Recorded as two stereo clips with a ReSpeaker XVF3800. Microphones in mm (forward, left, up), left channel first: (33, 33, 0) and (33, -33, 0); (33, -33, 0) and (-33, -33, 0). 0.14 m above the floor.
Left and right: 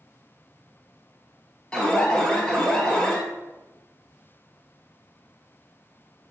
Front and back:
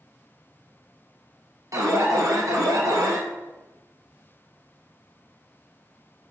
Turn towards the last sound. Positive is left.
turn(degrees=165)